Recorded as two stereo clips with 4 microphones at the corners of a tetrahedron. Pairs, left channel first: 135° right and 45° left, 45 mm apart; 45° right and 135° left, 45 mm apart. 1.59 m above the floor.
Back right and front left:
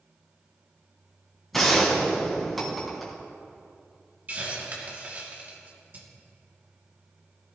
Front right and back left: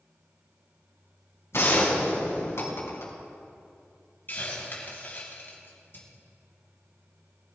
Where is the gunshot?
50° right, 4 m.